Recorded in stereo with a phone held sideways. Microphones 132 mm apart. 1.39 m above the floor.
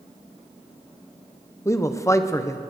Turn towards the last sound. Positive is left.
turn(degrees=20)  # may be behind; listen again after turning